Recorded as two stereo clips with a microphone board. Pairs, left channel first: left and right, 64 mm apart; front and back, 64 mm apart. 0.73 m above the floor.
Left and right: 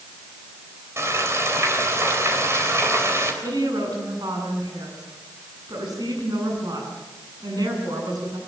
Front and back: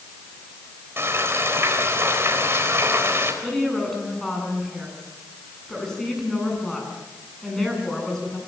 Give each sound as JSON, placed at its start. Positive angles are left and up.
{"t": 1.0, "sound": "frying", "azimuth_deg": -130, "distance_m": 4.0}
{"t": 3.4, "sound": "a woman speaking", "azimuth_deg": -85, "distance_m": 8.0}